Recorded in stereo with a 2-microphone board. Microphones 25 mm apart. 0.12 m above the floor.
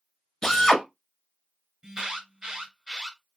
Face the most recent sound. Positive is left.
turn(degrees=-30)  # may be behind; listen again after turning